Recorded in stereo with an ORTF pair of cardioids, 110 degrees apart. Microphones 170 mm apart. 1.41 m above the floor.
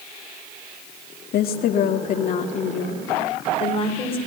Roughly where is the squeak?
I don't hear a squeak.